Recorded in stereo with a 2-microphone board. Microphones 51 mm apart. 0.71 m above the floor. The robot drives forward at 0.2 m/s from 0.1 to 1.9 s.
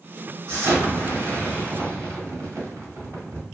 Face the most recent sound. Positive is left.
turn(degrees=-80)